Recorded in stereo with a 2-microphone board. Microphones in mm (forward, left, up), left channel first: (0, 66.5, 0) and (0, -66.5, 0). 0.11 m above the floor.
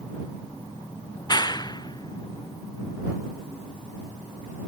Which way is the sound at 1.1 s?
30° left (ahead or behind).